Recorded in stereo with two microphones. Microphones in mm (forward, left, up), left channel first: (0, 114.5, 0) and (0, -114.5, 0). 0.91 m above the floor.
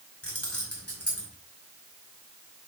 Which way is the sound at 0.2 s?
75° left (ahead or behind).